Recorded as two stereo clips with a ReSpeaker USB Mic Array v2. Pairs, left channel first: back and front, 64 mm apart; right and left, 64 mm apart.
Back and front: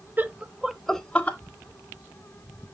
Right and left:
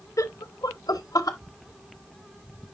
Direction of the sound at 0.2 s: 60° right.